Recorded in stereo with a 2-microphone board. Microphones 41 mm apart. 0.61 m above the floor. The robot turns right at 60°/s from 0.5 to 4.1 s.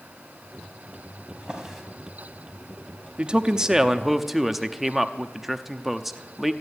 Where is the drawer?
30° right (ahead or behind), 2.5 m; by 1.8 s centre (ahead or behind), 2.5 m.